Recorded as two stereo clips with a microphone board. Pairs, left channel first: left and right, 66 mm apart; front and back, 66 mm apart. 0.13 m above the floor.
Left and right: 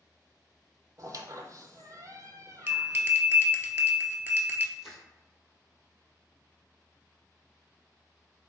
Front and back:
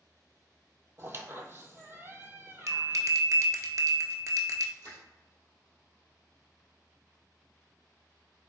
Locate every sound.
1.0 s a squeak: 125° right, 0.5 m
2.7 s a bell: 145° right, 0.5 m
4.8 s crushing: 170° right, 1.7 m